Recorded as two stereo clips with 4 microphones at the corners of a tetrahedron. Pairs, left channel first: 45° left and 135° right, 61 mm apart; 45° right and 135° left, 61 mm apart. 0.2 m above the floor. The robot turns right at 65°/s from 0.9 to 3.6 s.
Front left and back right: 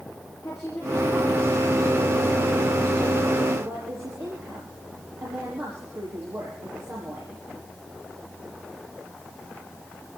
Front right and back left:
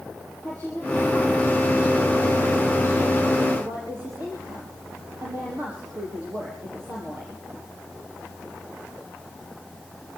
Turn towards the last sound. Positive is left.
turn(degrees=-175)